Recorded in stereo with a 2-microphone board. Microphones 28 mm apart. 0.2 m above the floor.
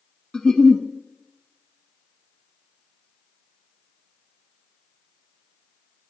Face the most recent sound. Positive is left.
turn(degrees=20)  # may be behind; listen again after turning